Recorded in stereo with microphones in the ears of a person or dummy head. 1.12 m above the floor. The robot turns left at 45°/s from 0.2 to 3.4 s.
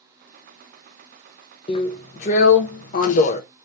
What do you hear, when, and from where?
1.7 s a drill: 140° left, 0.7 m; by 3.4 s 60° left, 0.7 m